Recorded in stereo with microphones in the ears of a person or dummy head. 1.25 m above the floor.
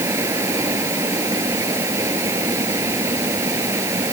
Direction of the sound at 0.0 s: 15° right (ahead or behind).